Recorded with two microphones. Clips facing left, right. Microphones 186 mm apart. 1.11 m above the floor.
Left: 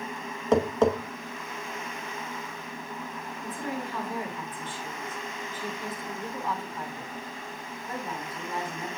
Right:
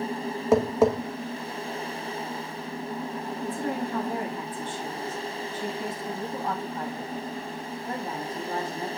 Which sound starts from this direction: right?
A woman speaking, at 3.4 s.